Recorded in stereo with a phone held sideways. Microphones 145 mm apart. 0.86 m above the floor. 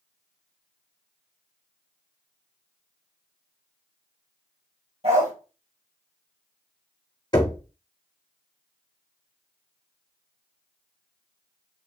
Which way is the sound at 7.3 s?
30° left (ahead or behind).